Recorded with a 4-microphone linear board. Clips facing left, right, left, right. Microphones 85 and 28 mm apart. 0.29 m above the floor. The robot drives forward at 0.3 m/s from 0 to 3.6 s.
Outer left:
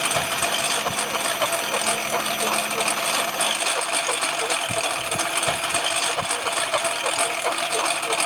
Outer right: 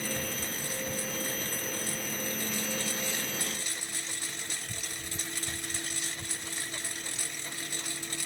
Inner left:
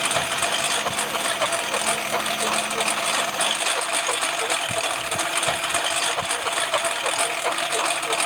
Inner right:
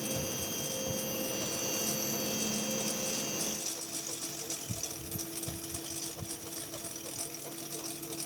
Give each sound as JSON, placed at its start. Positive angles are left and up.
{"t": 0.0, "sound": "a lawn mower", "side_deg": 80}